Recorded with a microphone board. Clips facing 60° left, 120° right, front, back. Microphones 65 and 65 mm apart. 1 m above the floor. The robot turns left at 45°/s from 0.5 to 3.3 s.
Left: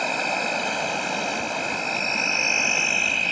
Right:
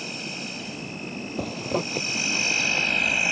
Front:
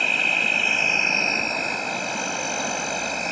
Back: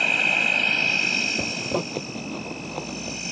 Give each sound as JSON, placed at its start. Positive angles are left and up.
{"t": 0.0, "sound": "an insect", "azimuth_deg": 90}
{"t": 1.4, "sound": "a zipper", "azimuth_deg": -140}